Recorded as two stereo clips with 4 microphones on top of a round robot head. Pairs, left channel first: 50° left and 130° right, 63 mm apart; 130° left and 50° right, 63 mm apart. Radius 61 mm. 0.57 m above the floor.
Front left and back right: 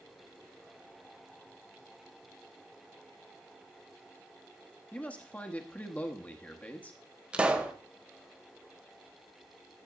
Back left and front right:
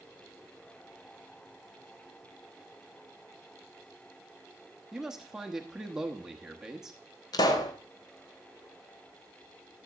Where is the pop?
155° left, 1.2 m.